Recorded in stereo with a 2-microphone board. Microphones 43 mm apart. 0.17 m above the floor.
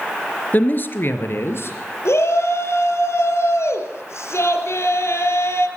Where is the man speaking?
40° left (ahead or behind), 2.5 m; by 1.8 s 60° left (ahead or behind), 4 m.